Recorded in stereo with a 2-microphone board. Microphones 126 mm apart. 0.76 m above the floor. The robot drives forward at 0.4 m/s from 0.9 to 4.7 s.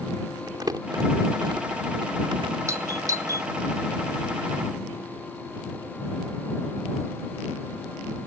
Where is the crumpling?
35° right (ahead or behind); by 2.6 s 45° right (ahead or behind).